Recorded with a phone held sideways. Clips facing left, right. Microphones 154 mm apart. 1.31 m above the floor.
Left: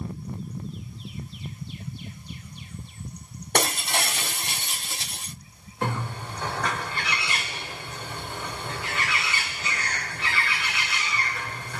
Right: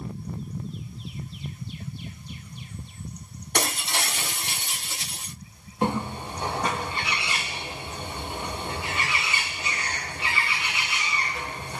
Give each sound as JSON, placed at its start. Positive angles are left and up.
{"t": 3.5, "sound": "breaking glass", "side_deg": 55, "distance_m": 2.0}
{"t": 5.8, "sound": "a bird", "side_deg": -20, "distance_m": 1.3}